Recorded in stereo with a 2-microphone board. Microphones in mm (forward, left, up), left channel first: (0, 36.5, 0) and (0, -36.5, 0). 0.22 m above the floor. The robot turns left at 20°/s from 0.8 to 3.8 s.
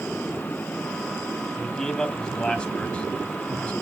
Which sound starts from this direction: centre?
A man speaking, at 1.6 s.